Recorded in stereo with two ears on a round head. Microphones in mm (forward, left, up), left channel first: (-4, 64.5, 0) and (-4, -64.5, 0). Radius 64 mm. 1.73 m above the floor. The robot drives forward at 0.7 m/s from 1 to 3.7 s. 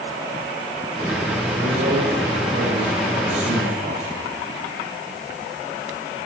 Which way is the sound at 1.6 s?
60° right (ahead or behind).